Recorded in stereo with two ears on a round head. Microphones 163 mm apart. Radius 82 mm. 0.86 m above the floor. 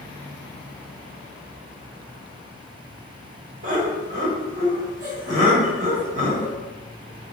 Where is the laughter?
45° right (ahead or behind), 1.3 m.